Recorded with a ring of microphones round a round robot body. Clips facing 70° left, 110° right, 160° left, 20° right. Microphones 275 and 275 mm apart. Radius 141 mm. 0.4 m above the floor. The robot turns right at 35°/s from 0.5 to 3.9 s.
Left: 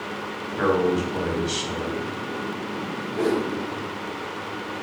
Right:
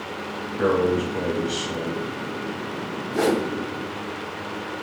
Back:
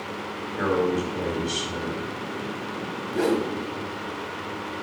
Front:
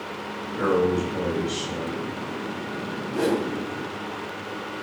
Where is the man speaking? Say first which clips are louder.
Right 1 dB, front 2 dB; 55° left, 3 m; by 2.0 s 105° left, 3 m.